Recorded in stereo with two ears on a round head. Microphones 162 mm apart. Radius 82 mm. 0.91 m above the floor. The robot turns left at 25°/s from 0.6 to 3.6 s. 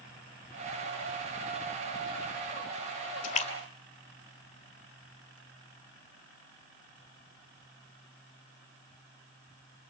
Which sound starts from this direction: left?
A splash, at 3.2 s.